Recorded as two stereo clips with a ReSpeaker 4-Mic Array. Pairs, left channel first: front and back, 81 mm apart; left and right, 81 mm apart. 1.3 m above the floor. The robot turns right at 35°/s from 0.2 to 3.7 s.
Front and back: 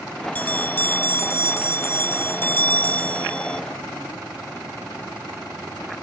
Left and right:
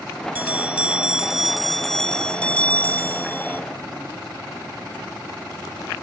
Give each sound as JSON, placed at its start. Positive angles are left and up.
{"t": 0.3, "sound": "a bell", "azimuth_deg": -45}